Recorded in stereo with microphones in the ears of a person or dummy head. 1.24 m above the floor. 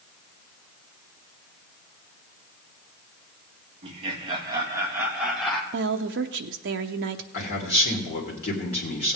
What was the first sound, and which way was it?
Laughter, 35° right (ahead or behind).